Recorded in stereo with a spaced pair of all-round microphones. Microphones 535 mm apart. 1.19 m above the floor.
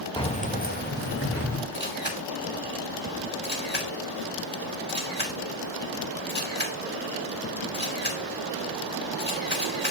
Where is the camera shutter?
20° left (ahead or behind), 2.5 m.